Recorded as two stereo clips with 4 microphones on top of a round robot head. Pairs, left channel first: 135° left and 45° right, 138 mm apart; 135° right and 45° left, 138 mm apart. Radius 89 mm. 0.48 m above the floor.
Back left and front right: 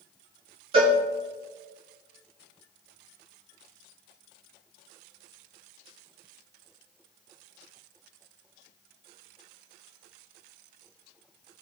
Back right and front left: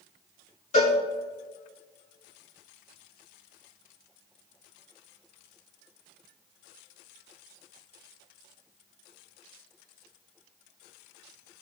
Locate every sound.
0.7 s a cowbell: 95° right, 4.5 m